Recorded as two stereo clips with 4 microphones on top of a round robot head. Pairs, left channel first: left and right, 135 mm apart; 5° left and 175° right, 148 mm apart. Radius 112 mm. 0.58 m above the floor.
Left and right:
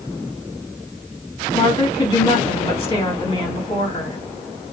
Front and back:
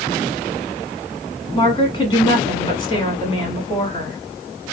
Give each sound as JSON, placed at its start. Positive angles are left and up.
{"t": 1.5, "sound": "a woman speaking", "azimuth_deg": 45, "distance_m": 1.6}